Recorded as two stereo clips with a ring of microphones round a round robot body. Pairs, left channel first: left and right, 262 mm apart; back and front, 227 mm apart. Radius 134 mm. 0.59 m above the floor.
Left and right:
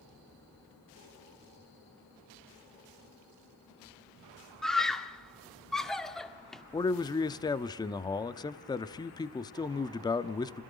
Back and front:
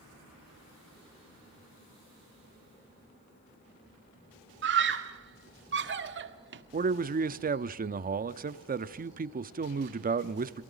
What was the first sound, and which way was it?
A scream, straight ahead.